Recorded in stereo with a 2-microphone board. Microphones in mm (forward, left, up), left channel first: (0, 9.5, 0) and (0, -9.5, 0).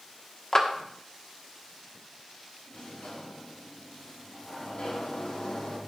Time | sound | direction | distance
0.5 | a clap | 30° left (ahead or behind) | 1.3 m
2.7 | a sliding door | 75° left (ahead or behind) | 4 m